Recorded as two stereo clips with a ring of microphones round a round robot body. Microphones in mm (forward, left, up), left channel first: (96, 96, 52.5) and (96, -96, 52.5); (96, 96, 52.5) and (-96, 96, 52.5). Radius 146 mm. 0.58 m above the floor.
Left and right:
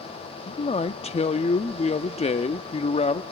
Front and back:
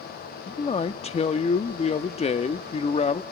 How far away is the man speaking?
About 0.8 m.